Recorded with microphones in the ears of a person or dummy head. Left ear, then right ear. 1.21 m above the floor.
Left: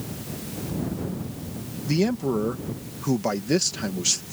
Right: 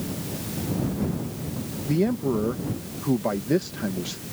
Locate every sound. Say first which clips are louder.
1.9 s a man speaking: even; 65° left (ahead or behind)